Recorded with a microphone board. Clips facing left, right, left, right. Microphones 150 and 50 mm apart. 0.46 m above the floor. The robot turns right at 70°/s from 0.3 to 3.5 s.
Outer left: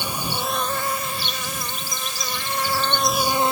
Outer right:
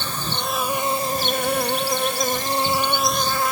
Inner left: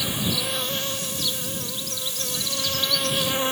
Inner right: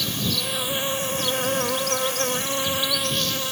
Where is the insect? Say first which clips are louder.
Outer left 1 dB, even; 165° left; by 3.5 s 30° left.